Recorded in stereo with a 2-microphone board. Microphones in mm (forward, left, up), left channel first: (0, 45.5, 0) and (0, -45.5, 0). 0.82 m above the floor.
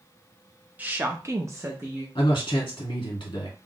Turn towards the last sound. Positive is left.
turn(degrees=65)  # may be behind; listen again after turning